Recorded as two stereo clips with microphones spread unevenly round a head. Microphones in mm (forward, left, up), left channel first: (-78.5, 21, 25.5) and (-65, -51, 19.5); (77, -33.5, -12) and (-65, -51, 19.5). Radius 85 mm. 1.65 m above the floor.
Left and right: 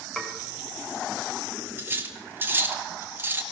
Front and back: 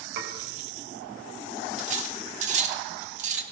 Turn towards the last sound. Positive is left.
turn(degrees=-140)